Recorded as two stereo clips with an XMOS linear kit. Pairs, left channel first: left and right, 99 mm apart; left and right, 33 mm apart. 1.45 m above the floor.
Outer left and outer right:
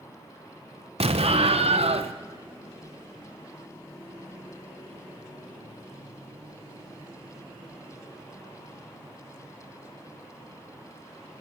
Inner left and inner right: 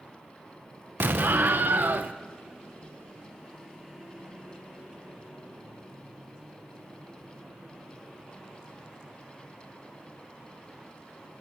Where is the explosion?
85° right, 1.1 m.